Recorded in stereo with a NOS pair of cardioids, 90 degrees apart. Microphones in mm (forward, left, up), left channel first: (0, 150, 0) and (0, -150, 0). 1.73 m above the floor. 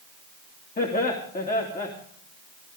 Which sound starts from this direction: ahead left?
Laughter, at 0.8 s.